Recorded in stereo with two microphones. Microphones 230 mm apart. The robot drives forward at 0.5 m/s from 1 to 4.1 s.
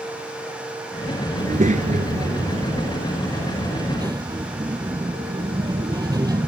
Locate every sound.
1.4 s a child speaking: 35° right (ahead or behind); by 6.5 s 15° right (ahead or behind)